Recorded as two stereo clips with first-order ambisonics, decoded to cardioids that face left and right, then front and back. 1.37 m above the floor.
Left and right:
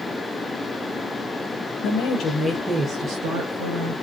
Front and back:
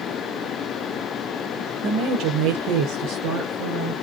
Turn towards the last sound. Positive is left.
turn(degrees=-125)